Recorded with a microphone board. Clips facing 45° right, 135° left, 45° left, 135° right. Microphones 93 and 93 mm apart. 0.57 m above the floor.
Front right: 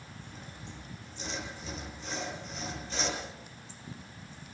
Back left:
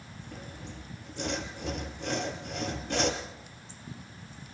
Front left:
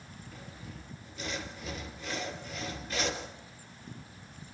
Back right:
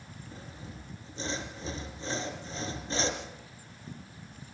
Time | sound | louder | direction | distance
0.3 | sawing | back left 6 dB, back right 2 dB | 165° left | 4 m